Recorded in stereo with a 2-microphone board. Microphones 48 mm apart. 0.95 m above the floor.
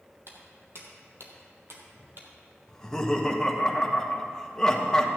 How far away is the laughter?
About 1.2 m.